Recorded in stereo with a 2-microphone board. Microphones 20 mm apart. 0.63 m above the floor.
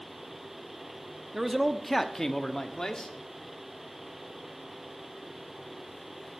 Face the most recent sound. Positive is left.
turn(degrees=35)  # may be behind; listen again after turning